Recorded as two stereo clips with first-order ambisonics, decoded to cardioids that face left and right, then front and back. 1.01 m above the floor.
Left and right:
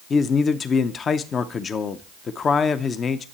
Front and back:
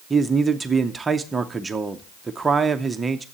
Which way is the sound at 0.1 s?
115° left.